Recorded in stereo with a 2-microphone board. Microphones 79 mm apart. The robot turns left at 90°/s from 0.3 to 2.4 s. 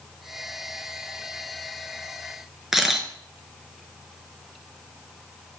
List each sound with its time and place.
2.7 s a camera shutter: 5° right (ahead or behind), 0.6 m